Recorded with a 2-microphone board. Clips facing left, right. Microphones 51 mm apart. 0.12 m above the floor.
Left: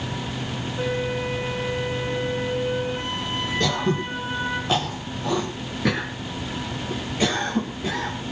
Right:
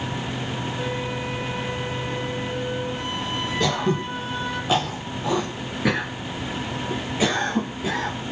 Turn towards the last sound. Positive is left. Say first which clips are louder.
# right 1 dB
turn(degrees=-5)  # may be behind; listen again after turning